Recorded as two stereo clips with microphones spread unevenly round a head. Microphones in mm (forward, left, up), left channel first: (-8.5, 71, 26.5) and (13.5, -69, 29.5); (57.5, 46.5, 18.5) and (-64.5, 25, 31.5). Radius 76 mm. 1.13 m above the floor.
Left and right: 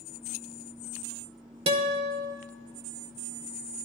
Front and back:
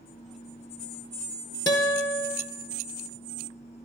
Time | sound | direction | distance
1.7 | a guitar | 35° right | 0.8 m